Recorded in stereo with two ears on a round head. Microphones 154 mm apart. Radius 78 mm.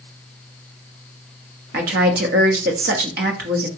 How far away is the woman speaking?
About 1.1 m.